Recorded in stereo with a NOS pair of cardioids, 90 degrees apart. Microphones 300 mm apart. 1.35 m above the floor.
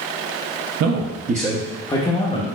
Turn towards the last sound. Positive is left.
turn(degrees=30)